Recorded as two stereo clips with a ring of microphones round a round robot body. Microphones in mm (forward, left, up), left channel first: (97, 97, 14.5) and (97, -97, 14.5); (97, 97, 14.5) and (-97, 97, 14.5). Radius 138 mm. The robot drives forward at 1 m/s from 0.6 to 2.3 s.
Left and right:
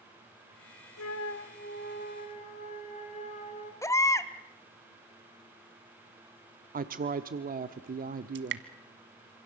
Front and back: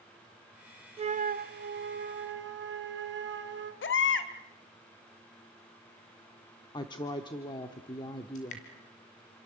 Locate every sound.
1.0 s a flute: 115° left, 0.7 m; by 3.7 s 160° left, 1.8 m
3.8 s a baby crying: 15° left, 1.6 m
6.7 s a woman speaking: 65° right, 0.9 m
8.3 s dripping: 65° right, 1.5 m